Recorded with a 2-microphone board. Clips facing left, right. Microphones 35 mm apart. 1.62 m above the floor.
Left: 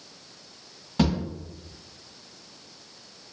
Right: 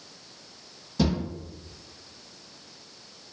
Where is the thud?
45° left (ahead or behind), 1.4 m.